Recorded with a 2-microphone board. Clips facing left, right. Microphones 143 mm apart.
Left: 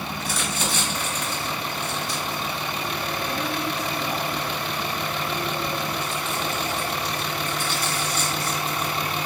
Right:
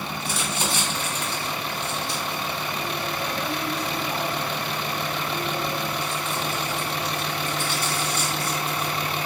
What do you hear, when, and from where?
0.2 s crumpling: 30° right (ahead or behind), 1.9 m